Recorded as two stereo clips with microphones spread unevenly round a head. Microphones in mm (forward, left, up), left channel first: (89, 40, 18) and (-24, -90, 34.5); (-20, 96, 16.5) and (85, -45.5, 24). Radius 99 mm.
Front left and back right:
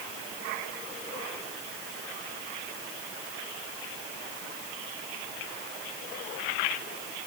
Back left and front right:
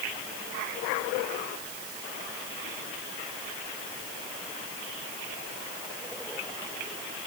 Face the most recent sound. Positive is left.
No sound to turn to.